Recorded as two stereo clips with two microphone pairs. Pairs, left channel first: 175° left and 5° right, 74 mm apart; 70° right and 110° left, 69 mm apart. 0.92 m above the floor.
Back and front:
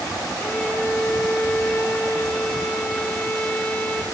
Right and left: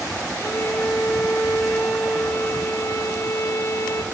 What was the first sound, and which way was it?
A violin, 115° right.